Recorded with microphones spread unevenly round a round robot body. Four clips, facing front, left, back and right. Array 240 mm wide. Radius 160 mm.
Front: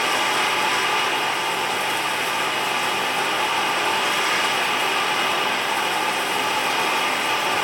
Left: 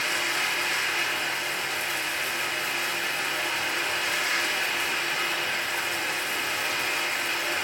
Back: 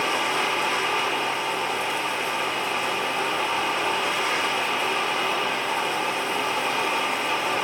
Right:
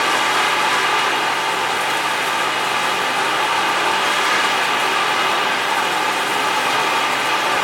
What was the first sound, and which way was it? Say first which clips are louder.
Running water: right 13 dB, front 3 dB; 55° right.